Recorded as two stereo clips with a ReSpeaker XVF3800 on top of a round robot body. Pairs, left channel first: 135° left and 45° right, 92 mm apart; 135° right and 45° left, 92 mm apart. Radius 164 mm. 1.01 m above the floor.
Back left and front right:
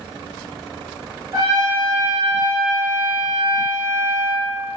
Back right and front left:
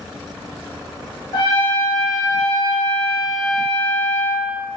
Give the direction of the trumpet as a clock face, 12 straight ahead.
3 o'clock.